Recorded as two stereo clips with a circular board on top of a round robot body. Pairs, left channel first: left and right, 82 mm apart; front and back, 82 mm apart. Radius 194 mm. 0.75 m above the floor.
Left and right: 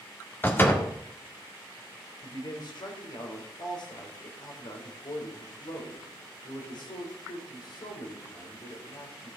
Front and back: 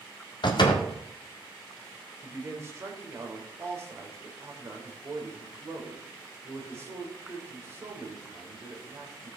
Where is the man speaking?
120° left, 3.5 m.